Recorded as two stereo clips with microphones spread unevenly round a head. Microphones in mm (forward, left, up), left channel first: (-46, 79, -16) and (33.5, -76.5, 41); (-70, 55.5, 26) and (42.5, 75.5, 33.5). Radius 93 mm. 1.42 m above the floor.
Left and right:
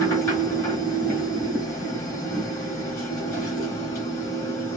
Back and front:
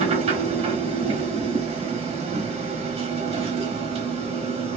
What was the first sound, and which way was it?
A machine running, 45° left.